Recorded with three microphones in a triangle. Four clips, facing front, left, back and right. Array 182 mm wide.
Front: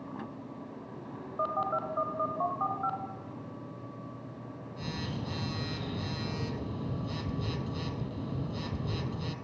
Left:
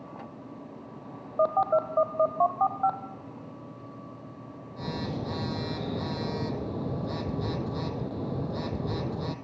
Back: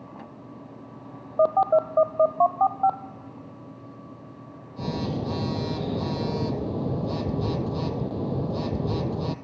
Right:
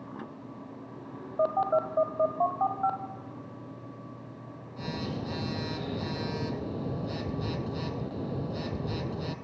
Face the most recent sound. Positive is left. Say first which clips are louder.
# left 2 dB, back 12 dB
turn(degrees=-175)